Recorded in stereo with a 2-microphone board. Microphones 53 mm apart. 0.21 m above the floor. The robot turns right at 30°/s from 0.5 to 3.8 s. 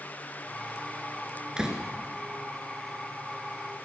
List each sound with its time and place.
1.6 s a door slam: 15° right (ahead or behind), 1.8 m; by 1.8 s 10° right (ahead or behind), 1.8 m